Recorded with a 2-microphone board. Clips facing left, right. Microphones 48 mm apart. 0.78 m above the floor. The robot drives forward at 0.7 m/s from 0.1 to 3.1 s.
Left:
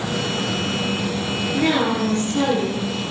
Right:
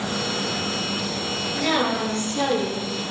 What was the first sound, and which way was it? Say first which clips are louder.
A woman speaking: left 3 dB; 25° left (ahead or behind).